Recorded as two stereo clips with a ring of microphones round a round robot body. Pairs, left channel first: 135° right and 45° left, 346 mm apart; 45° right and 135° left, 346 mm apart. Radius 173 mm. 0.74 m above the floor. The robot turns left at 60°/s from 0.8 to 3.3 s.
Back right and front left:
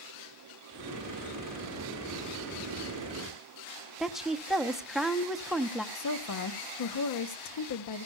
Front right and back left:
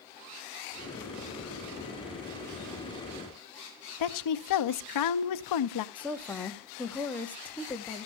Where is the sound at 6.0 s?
130° right, 1.0 m.